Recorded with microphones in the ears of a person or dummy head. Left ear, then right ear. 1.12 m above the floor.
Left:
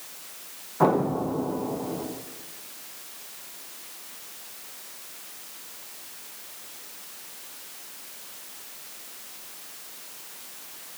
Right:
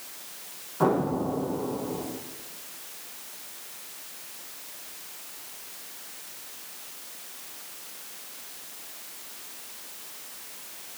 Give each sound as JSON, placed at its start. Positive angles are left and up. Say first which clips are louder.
{"t": 0.8, "sound": "an explosion", "louder": "left 2 dB", "side_deg": 20, "distance_m": 0.8}